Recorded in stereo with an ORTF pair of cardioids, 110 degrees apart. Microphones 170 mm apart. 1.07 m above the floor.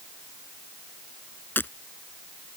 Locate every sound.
1.6 s breaking glass: 10° left